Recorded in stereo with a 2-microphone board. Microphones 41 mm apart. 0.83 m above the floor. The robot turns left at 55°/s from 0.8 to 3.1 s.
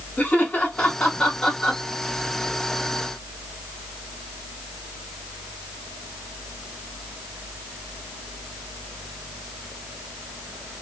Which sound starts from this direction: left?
Laughter, at 0.2 s.